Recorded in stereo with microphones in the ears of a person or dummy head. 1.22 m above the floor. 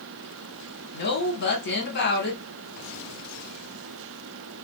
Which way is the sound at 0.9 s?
55° left (ahead or behind).